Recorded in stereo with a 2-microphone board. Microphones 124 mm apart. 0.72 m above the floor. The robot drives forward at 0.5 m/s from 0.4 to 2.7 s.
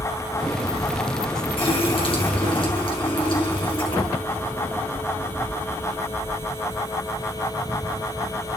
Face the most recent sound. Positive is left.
turn(degrees=45)  # may be behind; listen again after turning